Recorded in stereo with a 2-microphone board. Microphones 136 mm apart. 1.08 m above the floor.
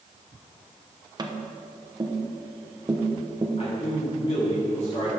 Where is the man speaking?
55° left (ahead or behind), 2 m.